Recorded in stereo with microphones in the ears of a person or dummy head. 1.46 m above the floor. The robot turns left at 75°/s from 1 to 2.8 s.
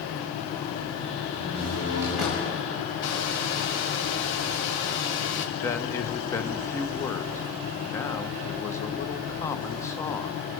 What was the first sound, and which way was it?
A door slam, 115° right.